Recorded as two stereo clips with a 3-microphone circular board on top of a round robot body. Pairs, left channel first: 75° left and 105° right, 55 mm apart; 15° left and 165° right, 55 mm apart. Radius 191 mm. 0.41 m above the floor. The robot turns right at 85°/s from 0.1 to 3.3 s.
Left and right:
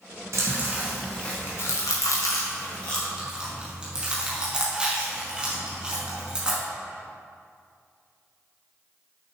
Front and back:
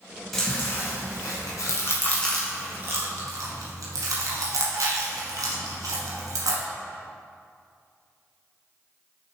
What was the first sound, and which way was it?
Chewing, 75° right.